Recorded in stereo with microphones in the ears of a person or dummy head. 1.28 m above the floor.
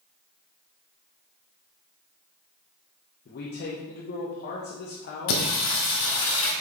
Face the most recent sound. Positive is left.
turn(degrees=70)  # may be behind; listen again after turning